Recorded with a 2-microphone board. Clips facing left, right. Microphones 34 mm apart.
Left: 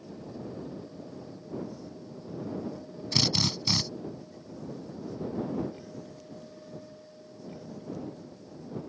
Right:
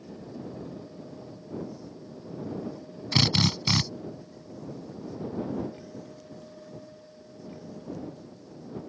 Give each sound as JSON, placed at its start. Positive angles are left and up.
{"t": 3.1, "sound": "a drill", "side_deg": -35}